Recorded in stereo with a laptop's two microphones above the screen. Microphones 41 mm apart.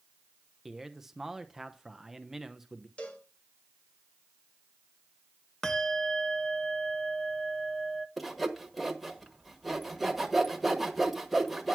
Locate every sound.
0.7 s a man speaking: 5° right (ahead or behind), 0.7 m
3.0 s a cowbell: 30° left (ahead or behind), 1.2 m
5.6 s a bell: 15° left (ahead or behind), 0.6 m
8.2 s sawing: centre (ahead or behind), 1.2 m